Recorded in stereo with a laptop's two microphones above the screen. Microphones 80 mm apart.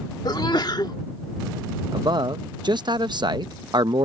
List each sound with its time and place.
0.2 s a sneeze: 55° left (ahead or behind)
1.9 s a man speaking: 60° right (ahead or behind)